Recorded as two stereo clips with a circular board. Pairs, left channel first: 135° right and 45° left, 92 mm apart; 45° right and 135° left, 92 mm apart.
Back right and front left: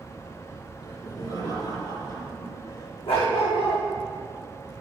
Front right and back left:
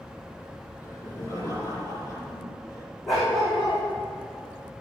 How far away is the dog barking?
About 5 m.